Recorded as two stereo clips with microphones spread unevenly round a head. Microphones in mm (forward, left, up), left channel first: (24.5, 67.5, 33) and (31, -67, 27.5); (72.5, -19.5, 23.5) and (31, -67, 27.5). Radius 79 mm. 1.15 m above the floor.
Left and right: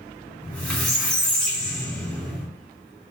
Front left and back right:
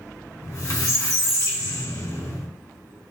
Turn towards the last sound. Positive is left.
turn(degrees=15)